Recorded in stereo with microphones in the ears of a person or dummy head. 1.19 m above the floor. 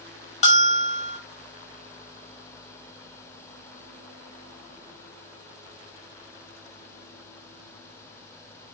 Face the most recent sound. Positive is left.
turn(degrees=35)  # may be behind; listen again after turning